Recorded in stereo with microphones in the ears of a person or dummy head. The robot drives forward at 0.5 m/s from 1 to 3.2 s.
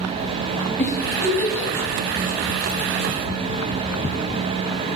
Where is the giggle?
10° left (ahead or behind), 2 m.